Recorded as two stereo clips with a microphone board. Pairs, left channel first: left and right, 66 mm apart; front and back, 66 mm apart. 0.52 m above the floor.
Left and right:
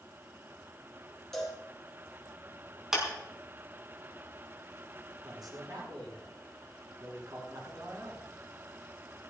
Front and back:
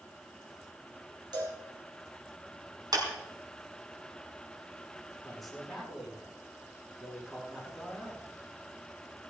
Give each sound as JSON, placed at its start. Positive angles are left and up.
{"t": 1.3, "sound": "a cowbell", "azimuth_deg": 175, "distance_m": 4.5}
{"t": 2.9, "sound": "a clap", "azimuth_deg": -175, "distance_m": 5.0}
{"t": 5.2, "sound": "a man speaking", "azimuth_deg": -90, "distance_m": 6.5}